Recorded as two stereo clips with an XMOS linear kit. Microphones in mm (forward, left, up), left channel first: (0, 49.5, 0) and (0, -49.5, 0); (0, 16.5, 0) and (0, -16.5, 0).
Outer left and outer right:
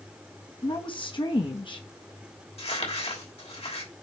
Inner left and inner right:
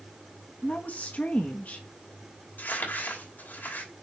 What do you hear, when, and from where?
0.6 s a woman speaking: 50° left (ahead or behind), 1.2 m
2.6 s crumpling: 70° left (ahead or behind), 3 m